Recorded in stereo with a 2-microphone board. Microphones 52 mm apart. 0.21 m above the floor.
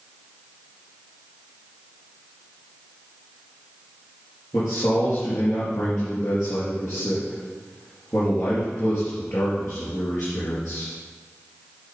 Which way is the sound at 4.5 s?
60° left (ahead or behind).